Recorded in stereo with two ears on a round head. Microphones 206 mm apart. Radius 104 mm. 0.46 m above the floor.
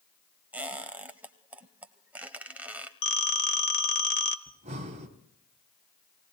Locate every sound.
0.5 s a squeak: 5° right (ahead or behind), 0.8 m
3.0 s a phone ringing: 55° left (ahead or behind), 1.2 m
4.5 s breathing: 30° right (ahead or behind), 1.8 m